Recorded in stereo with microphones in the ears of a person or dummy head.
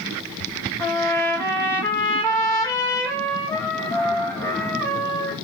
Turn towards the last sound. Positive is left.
turn(degrees=20)  # may be behind; listen again after turning